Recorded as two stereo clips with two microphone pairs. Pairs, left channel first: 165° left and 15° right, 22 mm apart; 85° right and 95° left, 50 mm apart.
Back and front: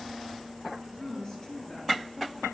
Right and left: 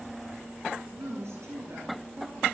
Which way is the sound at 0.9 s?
105° left.